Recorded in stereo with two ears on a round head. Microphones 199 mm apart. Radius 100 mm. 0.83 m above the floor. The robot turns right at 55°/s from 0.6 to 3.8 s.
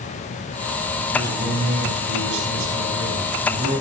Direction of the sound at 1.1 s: 170° right.